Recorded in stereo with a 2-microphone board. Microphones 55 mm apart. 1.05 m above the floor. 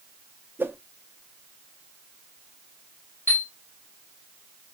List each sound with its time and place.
0.6 s a whoosh: 40° right (ahead or behind), 0.6 m
3.3 s a chime: 50° left (ahead or behind), 1.8 m